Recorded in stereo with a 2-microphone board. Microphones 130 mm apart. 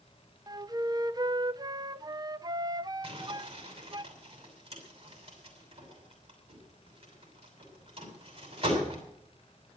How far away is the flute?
About 0.5 m.